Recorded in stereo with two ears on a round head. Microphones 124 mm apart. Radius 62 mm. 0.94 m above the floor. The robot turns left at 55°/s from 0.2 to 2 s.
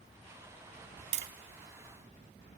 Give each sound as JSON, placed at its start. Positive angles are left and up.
{"t": 1.1, "sound": "tapping", "side_deg": -80, "distance_m": 2.0}